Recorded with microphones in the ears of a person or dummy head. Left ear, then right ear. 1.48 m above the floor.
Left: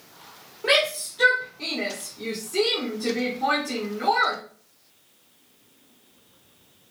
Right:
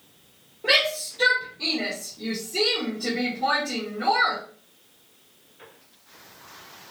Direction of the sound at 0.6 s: 40° left (ahead or behind).